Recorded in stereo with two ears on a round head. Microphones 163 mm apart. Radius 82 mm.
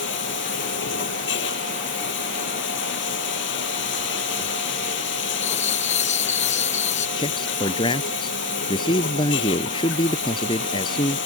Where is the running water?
70° left (ahead or behind).